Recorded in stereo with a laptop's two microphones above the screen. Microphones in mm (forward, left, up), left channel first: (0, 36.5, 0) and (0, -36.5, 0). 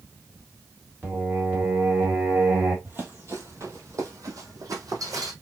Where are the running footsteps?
30° right (ahead or behind), 1.4 m; by 5.3 s 60° right (ahead or behind), 2.5 m.